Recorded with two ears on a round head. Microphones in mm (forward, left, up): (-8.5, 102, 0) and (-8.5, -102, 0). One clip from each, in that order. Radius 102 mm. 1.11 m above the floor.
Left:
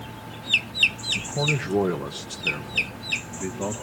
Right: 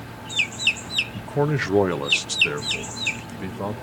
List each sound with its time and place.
1.1 s a man speaking: 35° right (ahead or behind), 1.1 m; by 3.7 s 45° right (ahead or behind), 2 m